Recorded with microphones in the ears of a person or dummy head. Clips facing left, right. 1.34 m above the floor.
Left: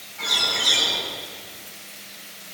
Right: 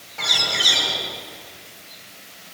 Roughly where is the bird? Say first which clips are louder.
Right 1 dB; right.